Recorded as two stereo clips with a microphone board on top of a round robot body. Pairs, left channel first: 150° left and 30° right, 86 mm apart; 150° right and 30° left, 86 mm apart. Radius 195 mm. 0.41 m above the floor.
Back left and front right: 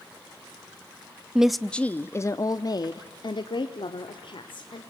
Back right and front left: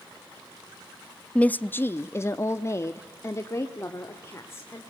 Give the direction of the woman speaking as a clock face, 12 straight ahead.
3 o'clock.